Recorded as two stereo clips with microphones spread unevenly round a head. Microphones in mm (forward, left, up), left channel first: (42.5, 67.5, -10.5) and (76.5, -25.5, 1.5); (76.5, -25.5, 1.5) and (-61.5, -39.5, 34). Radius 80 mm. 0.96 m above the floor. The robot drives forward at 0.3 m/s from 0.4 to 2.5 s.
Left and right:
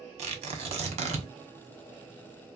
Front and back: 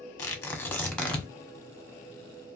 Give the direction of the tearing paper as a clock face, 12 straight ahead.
2 o'clock.